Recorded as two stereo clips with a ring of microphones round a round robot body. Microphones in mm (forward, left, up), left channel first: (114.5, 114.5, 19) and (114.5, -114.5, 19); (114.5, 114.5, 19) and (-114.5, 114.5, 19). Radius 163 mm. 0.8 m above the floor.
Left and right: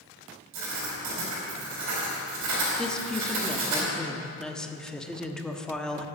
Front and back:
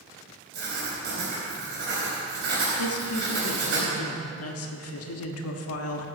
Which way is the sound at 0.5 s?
120° right.